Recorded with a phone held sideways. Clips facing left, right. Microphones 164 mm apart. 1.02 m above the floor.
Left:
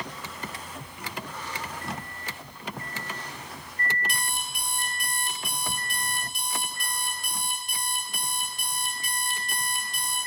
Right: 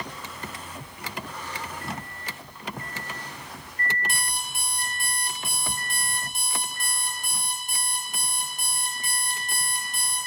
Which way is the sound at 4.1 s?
40° right (ahead or behind).